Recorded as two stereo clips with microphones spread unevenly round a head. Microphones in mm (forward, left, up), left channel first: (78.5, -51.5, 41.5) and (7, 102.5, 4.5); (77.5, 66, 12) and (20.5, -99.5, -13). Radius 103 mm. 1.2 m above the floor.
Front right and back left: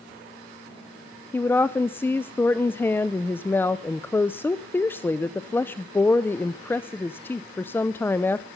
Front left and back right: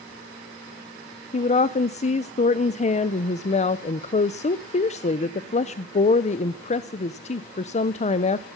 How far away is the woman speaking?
About 0.5 m.